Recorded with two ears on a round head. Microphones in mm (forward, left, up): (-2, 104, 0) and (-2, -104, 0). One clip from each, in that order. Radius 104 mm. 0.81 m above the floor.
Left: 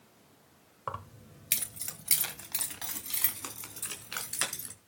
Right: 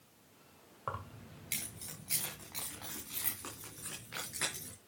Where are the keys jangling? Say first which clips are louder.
Left 3 dB; 20° left (ahead or behind), 2.0 m; by 4.7 s 90° left, 6.5 m.